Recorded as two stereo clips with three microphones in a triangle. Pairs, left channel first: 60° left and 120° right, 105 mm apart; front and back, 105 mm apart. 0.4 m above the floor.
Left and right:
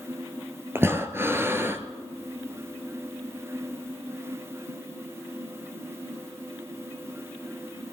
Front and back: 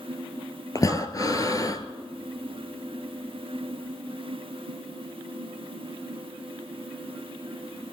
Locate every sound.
0.8 s breathing: 55° right, 1.2 m